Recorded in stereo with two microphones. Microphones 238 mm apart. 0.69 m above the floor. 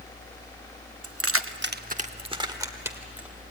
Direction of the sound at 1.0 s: 70° right (ahead or behind).